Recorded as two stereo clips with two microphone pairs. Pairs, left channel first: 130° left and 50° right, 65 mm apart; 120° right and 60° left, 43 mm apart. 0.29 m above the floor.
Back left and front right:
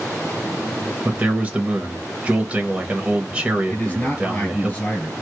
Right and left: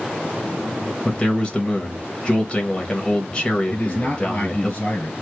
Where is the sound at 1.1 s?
85° right, 1.0 m.